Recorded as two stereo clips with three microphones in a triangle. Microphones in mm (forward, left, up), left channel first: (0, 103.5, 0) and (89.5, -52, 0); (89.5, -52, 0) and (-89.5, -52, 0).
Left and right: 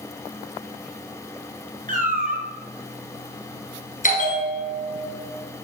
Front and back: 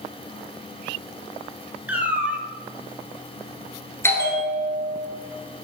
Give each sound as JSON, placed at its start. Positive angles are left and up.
{"t": 1.9, "sound": "a cat meowing", "azimuth_deg": -100, "distance_m": 1.5}
{"t": 4.0, "sound": "a bell", "azimuth_deg": 75, "distance_m": 2.0}